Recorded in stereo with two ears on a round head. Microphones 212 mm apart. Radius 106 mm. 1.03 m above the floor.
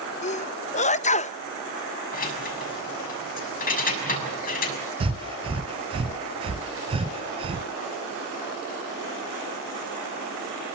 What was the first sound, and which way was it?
A sneeze, 30° left (ahead or behind).